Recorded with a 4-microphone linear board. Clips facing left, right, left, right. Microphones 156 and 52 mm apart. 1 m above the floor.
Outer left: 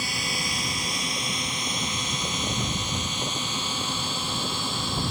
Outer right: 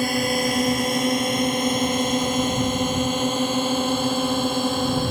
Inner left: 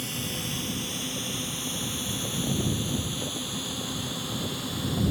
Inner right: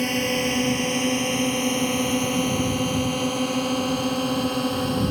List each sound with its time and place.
0.0 s a drone: 55° right (ahead or behind)